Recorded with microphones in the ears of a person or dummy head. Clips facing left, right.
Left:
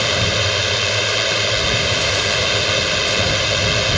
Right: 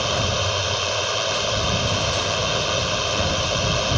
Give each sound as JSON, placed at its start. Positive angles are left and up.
{"t": 0.0, "sound": "a drone", "side_deg": 30}